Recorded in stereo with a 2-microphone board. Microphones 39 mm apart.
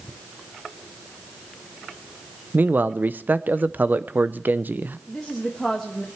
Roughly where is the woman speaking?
Centre.